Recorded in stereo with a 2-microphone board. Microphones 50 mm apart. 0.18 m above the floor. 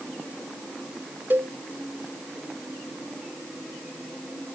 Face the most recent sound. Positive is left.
turn(degrees=-50)  # may be behind; listen again after turning